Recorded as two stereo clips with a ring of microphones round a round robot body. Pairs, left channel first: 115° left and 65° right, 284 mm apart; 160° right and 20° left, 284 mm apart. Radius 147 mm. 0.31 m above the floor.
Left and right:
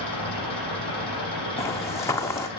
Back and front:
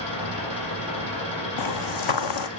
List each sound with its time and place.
0.0 s an engine running: 175° right, 8.5 m
1.6 s footsteps: 165° right, 1.1 m